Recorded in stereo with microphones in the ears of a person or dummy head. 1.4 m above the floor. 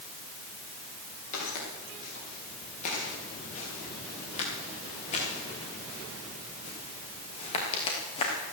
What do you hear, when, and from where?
1.3 s footsteps: 35° left (ahead or behind), 8 m; by 8.3 s 25° left (ahead or behind), 4 m